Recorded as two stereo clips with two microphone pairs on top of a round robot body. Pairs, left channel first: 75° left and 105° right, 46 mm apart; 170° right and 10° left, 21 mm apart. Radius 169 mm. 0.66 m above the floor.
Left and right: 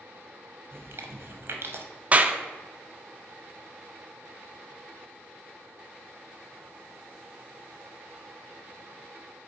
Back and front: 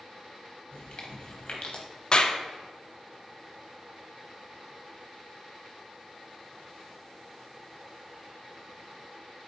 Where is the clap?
115° right, 0.5 m.